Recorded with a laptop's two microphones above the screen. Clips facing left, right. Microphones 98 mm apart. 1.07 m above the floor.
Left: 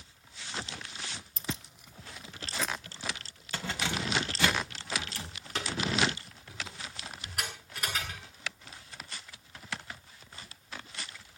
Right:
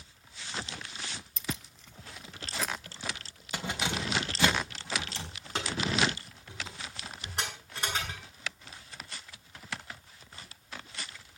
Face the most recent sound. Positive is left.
turn(degrees=-25)  # may be behind; listen again after turning